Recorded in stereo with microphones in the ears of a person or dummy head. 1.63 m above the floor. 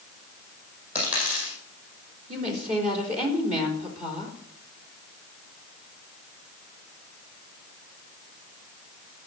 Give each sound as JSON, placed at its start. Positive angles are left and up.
{"t": 0.9, "sound": "a dropped coin", "side_deg": -10, "distance_m": 7.0}
{"t": 2.3, "sound": "a woman speaking", "side_deg": -45, "distance_m": 4.0}